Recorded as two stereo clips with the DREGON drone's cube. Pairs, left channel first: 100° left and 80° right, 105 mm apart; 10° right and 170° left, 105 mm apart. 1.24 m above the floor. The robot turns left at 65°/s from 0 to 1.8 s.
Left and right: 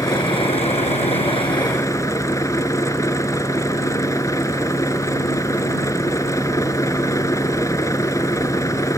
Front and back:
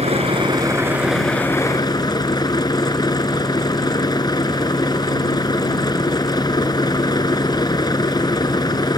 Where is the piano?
No piano in this recording.